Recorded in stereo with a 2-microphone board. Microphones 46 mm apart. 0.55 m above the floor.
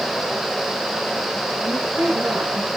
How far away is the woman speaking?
About 9 m.